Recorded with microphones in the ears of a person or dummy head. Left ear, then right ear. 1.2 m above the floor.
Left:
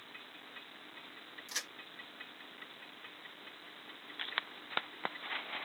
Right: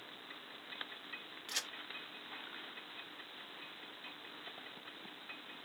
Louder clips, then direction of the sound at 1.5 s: Even; 15° left (ahead or behind).